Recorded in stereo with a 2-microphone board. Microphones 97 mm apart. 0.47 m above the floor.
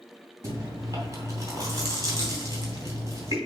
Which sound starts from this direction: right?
Chewing, at 0.4 s.